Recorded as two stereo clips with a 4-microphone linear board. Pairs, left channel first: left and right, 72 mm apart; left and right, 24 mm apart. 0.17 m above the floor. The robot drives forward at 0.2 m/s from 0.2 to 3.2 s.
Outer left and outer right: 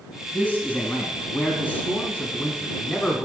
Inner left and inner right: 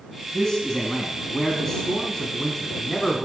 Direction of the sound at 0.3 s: 20° left (ahead or behind).